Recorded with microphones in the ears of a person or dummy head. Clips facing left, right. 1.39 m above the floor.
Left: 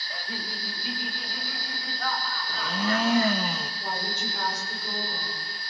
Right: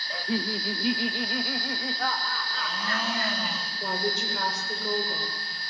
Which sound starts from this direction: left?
A blender, at 2.5 s.